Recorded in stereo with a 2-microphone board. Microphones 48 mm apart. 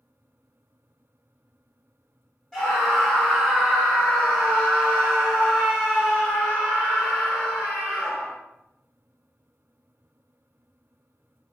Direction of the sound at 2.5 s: 5° left (ahead or behind).